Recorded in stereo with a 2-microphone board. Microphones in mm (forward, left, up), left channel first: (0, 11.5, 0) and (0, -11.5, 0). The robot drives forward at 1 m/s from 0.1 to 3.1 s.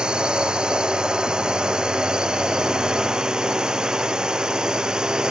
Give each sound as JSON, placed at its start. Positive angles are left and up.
{"t": 0.0, "sound": "a drone", "side_deg": -40}